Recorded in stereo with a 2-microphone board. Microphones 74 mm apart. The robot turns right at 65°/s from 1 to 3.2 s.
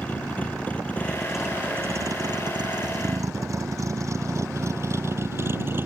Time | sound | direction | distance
0.0 | a vehicle | 20° left (ahead or behind) | ?